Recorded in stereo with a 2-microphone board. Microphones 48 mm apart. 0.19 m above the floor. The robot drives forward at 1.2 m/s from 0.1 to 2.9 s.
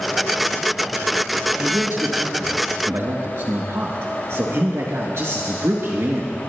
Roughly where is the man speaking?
Right.